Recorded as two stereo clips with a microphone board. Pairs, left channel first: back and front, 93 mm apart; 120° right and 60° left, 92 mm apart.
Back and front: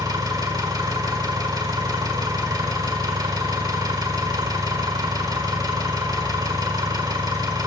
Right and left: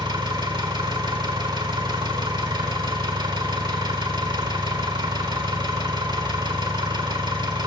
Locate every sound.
0.0 s an engine running: 35° left, 1.4 m